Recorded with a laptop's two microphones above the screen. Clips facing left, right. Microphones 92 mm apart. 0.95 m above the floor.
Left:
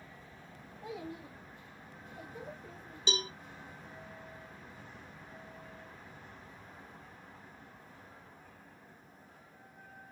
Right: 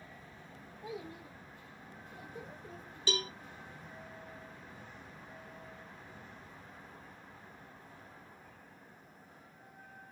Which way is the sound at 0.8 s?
65° left (ahead or behind).